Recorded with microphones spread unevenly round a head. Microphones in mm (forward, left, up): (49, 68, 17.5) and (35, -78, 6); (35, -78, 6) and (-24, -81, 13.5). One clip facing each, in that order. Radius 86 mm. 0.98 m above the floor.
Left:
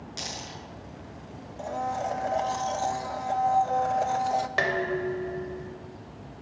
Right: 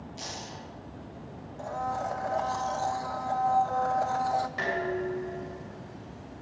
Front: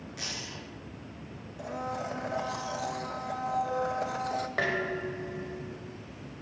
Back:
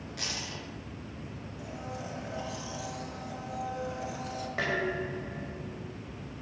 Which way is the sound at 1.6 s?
15° left.